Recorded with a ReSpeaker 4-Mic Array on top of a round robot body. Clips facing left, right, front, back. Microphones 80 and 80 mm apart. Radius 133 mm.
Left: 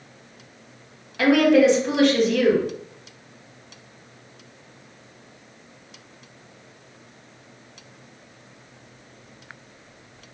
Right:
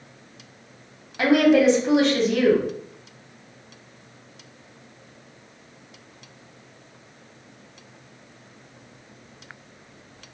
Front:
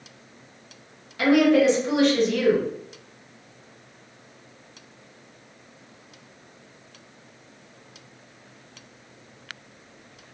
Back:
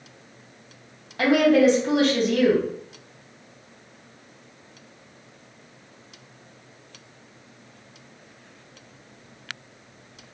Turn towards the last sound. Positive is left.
turn(degrees=-150)